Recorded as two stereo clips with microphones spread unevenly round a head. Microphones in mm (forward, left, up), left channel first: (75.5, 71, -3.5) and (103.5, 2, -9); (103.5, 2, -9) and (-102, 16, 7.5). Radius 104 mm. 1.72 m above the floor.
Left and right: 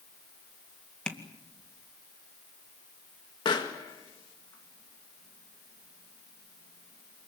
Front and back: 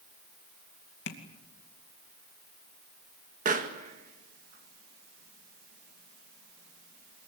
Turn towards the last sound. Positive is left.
turn(degrees=125)